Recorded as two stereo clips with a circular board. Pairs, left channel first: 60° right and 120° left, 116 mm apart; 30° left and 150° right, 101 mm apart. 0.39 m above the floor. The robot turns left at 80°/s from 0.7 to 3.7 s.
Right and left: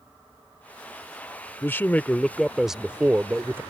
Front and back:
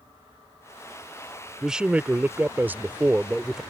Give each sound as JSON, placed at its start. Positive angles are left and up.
{"t": 1.6, "sound": "a man speaking", "azimuth_deg": -75}